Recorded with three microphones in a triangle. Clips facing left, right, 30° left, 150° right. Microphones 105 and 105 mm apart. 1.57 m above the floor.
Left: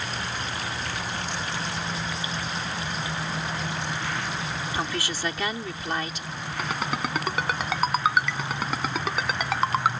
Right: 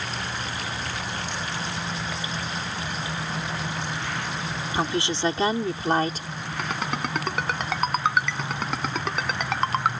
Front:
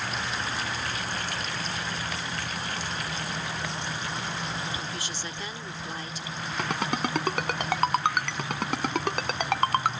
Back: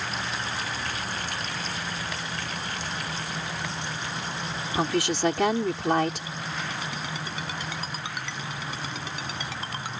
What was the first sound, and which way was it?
A woman speaking, 160° right.